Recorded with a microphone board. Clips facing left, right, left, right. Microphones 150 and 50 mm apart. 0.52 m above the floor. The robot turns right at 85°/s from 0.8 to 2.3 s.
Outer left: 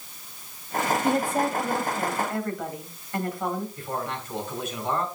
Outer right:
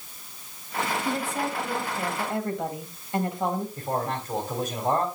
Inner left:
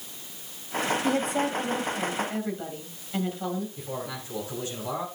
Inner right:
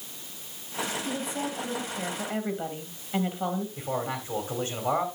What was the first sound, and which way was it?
A woman speaking, 95° left.